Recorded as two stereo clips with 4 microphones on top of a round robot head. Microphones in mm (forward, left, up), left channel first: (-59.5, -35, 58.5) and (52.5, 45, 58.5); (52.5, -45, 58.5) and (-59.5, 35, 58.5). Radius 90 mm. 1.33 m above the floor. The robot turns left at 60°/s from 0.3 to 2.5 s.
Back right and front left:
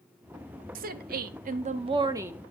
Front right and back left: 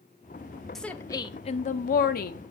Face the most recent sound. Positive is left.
turn(degrees=-50)